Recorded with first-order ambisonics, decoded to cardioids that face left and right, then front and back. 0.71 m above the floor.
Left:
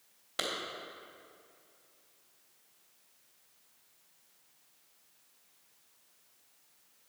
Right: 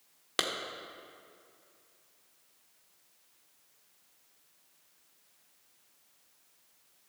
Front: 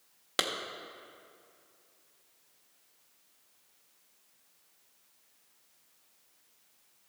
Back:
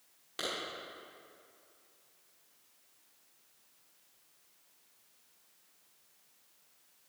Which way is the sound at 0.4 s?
40° right.